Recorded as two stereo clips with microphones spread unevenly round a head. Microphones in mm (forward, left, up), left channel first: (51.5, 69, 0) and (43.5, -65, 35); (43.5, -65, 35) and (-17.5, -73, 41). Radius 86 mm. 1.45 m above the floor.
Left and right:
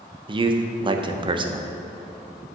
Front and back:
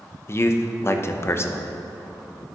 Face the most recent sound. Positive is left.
turn(degrees=-35)